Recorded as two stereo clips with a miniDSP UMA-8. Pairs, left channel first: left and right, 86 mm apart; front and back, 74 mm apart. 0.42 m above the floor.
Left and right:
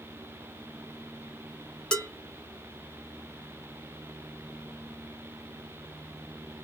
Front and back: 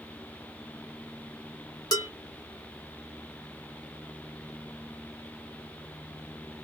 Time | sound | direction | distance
1.9 | dishes clattering | 10° left | 1.4 m